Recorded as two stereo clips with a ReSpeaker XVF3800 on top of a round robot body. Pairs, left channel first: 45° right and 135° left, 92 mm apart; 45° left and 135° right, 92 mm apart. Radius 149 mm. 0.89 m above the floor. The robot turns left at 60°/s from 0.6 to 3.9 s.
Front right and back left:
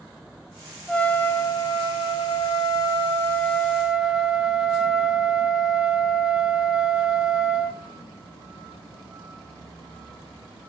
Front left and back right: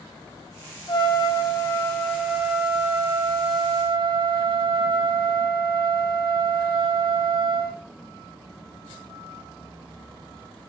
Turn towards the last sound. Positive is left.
turn(degrees=-145)